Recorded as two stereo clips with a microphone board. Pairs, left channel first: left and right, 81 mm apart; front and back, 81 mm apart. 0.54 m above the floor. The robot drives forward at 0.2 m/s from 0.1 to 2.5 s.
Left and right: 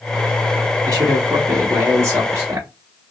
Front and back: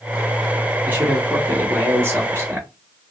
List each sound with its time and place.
0.8 s a man speaking: 125° right, 1.0 m; by 2.7 s 140° right, 1.2 m